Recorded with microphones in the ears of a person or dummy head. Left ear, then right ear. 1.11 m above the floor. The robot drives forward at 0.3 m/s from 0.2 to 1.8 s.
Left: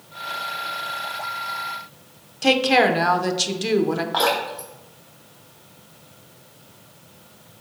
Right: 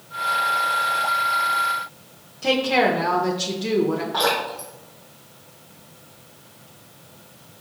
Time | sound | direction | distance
2.4 | a woman speaking | 35° left (ahead or behind) | 0.5 m
4.1 | dripping | 25° left (ahead or behind) | 1.0 m